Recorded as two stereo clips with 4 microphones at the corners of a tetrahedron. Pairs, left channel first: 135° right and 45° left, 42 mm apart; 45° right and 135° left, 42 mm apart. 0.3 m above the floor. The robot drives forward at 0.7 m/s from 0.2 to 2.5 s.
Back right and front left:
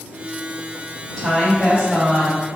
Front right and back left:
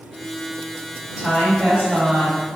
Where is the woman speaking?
150° left, 1.5 m; by 2.4 s 165° left, 2.0 m.